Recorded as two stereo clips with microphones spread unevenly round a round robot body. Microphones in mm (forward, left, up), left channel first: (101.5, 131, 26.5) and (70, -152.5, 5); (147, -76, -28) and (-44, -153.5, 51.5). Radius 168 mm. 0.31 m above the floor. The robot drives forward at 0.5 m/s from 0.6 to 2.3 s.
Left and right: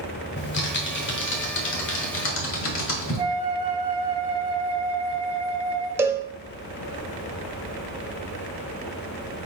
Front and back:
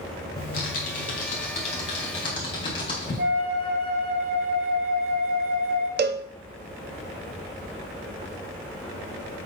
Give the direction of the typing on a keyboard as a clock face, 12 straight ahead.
11 o'clock.